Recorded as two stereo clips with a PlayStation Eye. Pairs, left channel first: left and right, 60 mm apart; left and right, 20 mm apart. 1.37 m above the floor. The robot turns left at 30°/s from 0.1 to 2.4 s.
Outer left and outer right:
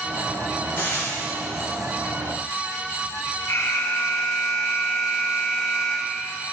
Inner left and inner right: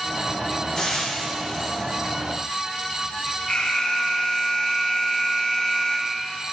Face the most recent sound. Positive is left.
turn(degrees=55)  # may be behind; listen again after turning